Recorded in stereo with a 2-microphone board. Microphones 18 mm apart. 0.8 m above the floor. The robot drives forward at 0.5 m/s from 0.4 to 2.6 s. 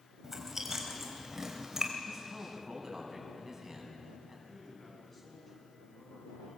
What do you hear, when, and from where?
0.2 s chewing: 20° right (ahead or behind), 3.5 m; by 1.9 s 25° right (ahead or behind), 3 m
2.1 s a man speaking: 15° right (ahead or behind), 7 m
4.5 s a man speaking: 10° left (ahead or behind), 7.5 m